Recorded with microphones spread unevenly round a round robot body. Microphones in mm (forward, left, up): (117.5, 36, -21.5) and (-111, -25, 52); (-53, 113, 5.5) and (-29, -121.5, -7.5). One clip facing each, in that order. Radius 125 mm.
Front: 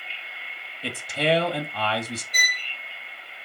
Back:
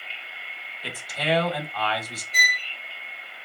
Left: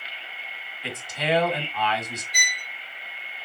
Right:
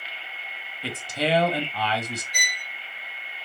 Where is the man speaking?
30° right, 1.7 m.